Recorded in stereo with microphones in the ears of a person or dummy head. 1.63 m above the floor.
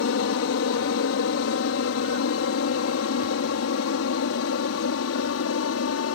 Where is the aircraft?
65° left (ahead or behind); by 6.2 s 75° left (ahead or behind).